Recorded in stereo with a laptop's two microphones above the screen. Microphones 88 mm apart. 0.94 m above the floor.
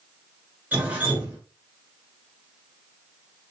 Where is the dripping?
25° right (ahead or behind), 2.5 m.